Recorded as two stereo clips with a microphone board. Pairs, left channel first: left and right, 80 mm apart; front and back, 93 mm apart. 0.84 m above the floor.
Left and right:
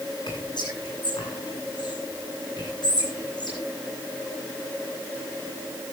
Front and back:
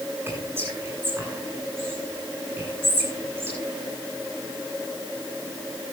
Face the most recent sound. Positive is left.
turn(degrees=115)